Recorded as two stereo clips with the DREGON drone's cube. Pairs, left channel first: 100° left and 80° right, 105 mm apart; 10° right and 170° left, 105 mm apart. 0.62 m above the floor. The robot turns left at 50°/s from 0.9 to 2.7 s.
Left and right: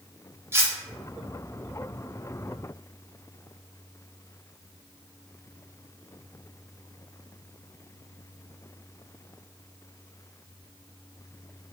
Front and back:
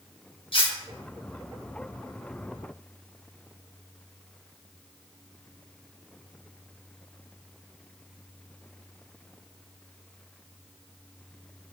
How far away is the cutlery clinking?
About 0.6 m.